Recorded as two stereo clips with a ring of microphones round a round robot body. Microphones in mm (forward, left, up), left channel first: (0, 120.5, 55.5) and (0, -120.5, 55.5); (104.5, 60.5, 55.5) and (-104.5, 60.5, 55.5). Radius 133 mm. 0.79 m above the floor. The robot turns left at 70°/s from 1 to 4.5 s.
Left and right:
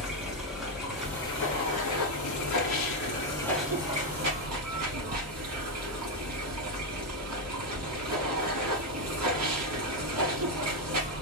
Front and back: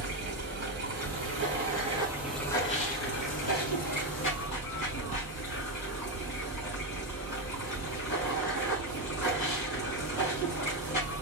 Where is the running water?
Straight behind, 3.5 m; by 11.2 s 65° right, 3.5 m.